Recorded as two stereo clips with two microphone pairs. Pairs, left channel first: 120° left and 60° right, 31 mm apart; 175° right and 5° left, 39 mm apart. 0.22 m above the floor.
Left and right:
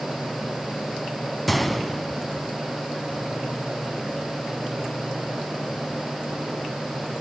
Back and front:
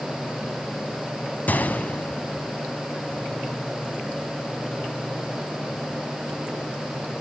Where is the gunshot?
155° right, 0.6 m.